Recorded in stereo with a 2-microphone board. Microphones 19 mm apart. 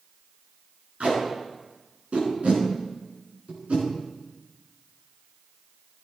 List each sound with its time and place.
1.0 s tape being pulled: 80° right, 5 m